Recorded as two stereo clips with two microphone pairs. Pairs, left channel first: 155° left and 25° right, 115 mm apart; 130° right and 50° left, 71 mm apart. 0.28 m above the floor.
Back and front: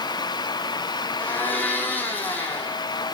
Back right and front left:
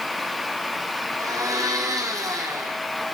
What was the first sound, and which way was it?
A blender, 85° left.